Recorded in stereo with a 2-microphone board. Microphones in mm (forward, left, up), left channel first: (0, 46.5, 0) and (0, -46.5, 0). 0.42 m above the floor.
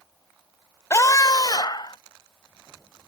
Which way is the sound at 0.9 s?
30° left (ahead or behind).